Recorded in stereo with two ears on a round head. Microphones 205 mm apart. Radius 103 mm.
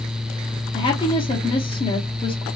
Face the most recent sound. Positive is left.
turn(degrees=25)  # may be behind; listen again after turning